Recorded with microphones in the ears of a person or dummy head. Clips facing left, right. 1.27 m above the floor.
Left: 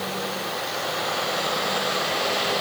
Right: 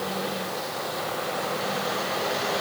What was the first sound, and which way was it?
Only background noise.